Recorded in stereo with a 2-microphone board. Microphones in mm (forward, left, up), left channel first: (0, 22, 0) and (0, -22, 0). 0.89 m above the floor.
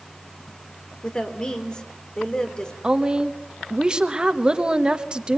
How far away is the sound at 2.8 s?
About 1.2 m.